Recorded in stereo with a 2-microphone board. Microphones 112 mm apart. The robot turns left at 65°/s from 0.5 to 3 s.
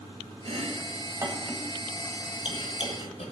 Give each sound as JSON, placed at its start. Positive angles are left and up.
{"t": 0.5, "sound": "chopping", "side_deg": -65, "distance_m": 1.3}